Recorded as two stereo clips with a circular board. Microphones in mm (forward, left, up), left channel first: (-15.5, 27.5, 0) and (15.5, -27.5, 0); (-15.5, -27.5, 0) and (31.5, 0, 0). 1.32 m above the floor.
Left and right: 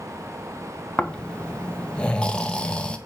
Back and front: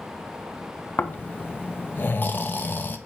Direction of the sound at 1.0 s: 175° right.